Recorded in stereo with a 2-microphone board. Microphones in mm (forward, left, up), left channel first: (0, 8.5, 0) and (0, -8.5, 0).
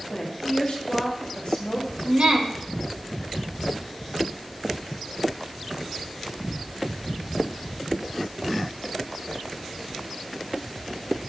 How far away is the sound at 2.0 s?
About 1.3 m.